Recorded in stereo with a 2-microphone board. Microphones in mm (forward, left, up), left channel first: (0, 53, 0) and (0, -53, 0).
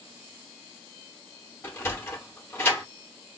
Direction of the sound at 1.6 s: 20° left (ahead or behind).